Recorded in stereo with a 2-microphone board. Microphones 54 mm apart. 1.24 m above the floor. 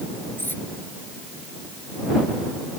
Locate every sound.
0.4 s cutlery clinking: 40° left (ahead or behind)